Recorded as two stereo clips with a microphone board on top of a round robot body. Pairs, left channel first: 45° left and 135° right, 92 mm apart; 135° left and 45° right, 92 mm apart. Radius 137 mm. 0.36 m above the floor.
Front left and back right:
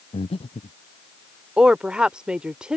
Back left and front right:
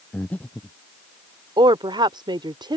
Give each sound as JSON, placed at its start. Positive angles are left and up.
{"t": 0.1, "sound": "breathing", "azimuth_deg": 60}
{"t": 1.6, "sound": "a woman speaking", "azimuth_deg": -55}